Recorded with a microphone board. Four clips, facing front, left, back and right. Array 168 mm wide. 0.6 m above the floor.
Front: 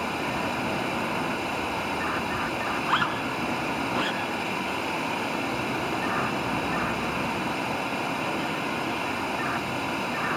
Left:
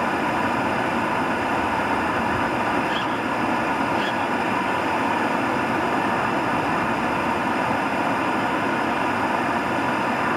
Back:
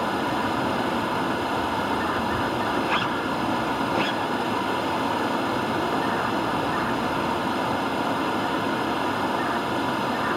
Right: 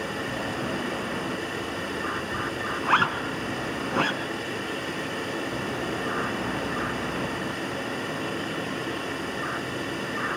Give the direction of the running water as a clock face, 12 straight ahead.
8 o'clock.